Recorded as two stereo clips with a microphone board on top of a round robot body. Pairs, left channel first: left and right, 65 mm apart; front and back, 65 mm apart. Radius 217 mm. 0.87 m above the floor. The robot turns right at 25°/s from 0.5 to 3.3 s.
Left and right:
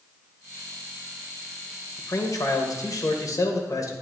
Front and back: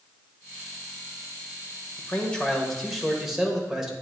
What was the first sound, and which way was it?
A man speaking, 65° left.